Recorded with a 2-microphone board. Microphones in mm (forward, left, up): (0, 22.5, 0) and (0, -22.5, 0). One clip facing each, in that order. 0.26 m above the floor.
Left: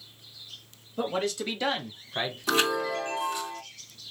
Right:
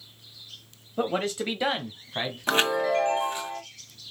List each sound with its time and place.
1.0 s a man speaking: 30° right (ahead or behind), 1.0 m; by 2.4 s 5° right (ahead or behind), 1.6 m
2.5 s a chime: 35° right (ahead or behind), 1.4 m